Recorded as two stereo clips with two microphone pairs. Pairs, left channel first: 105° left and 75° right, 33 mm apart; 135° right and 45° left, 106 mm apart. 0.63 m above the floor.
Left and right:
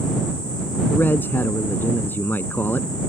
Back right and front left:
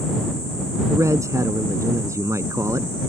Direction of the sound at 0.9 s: 105° left.